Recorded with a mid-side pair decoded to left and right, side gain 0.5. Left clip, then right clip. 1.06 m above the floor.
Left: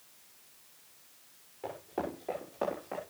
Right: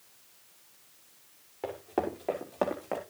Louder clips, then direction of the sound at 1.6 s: Right 5 dB; 50° right.